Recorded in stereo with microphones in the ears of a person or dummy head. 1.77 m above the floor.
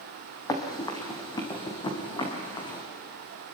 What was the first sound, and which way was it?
Running footsteps, 20° left (ahead or behind).